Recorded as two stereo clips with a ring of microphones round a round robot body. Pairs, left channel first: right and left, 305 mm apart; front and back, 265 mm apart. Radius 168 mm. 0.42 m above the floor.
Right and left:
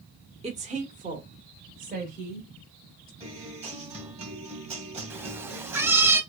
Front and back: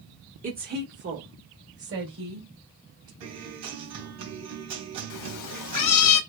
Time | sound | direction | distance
0.4 | a woman speaking | 145° left | 1.4 m
3.2 | a guitar | 160° left | 3 m
5.1 | a cat meowing | 5° left | 0.8 m